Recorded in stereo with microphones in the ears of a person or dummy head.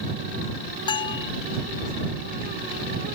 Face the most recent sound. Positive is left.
turn(degrees=25)  # may be behind; listen again after turning